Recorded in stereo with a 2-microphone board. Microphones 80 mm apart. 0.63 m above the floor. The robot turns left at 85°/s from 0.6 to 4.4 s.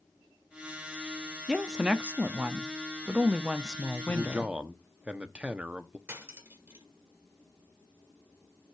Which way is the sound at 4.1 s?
25° right (ahead or behind).